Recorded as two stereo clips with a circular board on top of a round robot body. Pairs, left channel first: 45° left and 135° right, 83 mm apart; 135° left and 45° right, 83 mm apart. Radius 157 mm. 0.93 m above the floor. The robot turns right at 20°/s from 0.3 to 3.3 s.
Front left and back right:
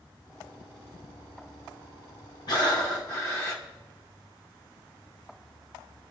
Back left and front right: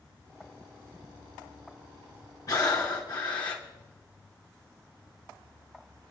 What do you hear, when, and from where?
2.5 s breathing: 85° left, 1.1 m; by 3.6 s 100° left, 1.1 m